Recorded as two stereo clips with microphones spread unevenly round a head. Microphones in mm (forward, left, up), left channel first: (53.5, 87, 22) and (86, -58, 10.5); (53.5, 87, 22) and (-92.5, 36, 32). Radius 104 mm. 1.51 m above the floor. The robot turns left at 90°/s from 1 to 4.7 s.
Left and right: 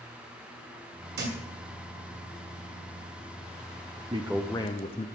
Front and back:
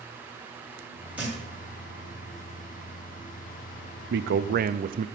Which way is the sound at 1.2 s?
75° right.